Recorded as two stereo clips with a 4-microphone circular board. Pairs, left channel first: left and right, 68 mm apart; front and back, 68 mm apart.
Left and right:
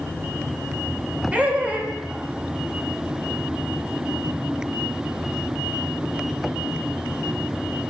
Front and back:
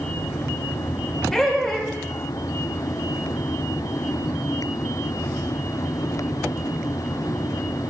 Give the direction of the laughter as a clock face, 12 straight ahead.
2 o'clock.